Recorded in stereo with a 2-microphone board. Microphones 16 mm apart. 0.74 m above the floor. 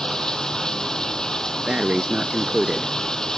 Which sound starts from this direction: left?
Running water, at 0.0 s.